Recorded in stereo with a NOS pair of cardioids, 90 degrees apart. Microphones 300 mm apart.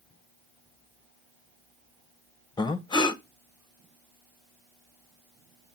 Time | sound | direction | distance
2.6 | breathing | 15° left | 0.6 m